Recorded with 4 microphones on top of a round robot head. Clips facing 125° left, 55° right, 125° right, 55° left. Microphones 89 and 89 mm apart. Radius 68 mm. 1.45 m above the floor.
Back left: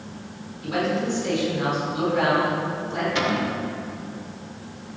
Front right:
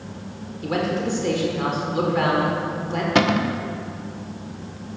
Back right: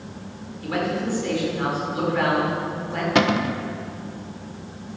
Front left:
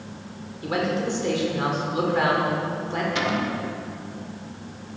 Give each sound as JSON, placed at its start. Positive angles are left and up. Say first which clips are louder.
{"t": 0.6, "sound": "a man speaking", "louder": "front right 1 dB, even", "azimuth_deg": -15, "distance_m": 5.5}
{"t": 3.1, "sound": "a cupboard door", "louder": "front right 7 dB, back right 9 dB", "azimuth_deg": -90, "distance_m": 1.2}